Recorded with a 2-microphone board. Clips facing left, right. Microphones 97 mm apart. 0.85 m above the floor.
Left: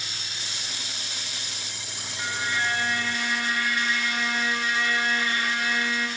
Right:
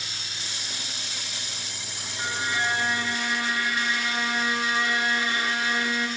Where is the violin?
20° right (ahead or behind), 1.4 m.